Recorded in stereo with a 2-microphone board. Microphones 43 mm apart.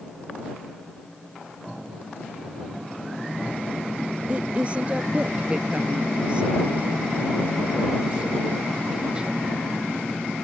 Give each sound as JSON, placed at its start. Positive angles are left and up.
{"t": 4.3, "sound": "a woman speaking", "side_deg": -30}